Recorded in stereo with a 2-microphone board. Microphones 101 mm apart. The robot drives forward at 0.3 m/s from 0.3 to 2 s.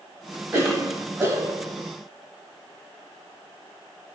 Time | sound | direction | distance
0.5 | a cough | 20° right (ahead or behind) | 1.3 m